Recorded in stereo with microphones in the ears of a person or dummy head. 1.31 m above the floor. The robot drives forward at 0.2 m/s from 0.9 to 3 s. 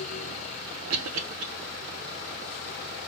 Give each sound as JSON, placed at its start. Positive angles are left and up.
{"t": 0.9, "sound": "a cough", "side_deg": -80, "distance_m": 0.5}